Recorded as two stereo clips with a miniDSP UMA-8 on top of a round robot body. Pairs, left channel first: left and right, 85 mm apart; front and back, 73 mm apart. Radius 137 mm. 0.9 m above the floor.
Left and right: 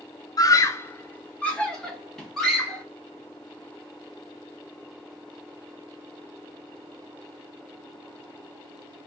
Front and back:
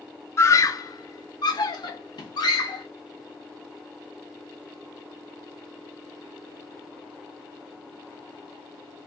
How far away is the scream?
About 0.7 m.